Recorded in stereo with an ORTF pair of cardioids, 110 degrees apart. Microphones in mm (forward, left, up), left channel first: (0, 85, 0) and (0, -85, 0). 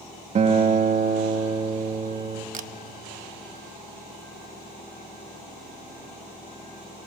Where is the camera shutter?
55° right, 0.9 m.